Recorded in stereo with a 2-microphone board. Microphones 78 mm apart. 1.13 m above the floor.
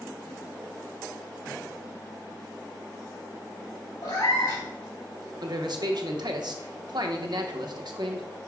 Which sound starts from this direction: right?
A man speaking, at 5.4 s.